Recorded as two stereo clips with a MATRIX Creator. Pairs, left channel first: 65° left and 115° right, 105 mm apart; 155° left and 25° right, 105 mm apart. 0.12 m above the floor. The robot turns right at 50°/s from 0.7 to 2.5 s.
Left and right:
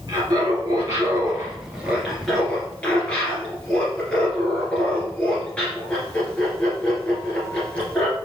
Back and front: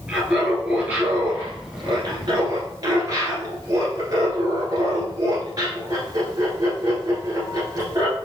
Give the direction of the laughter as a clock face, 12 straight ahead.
3 o'clock.